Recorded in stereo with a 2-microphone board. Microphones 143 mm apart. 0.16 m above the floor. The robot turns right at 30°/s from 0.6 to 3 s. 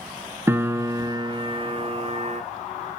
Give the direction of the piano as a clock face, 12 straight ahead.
5 o'clock.